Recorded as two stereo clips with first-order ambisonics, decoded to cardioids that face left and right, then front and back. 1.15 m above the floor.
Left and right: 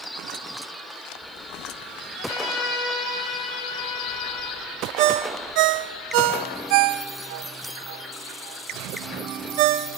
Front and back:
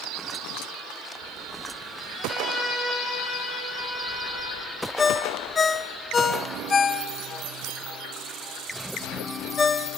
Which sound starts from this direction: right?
A ringtone, at 5.0 s.